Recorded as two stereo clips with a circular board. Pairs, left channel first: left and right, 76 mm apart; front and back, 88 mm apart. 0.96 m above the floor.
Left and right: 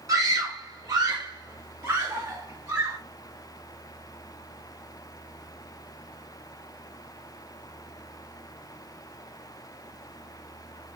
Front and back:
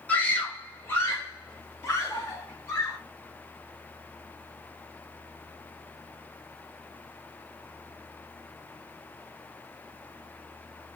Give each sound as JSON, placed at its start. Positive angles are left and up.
{"t": 0.1, "sound": "a scream", "azimuth_deg": -70, "distance_m": 0.9}